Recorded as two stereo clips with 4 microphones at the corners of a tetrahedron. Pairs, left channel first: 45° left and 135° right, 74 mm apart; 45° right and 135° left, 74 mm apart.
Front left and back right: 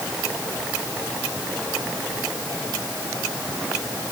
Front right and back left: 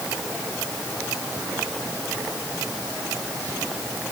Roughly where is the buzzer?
No buzzer in this recording.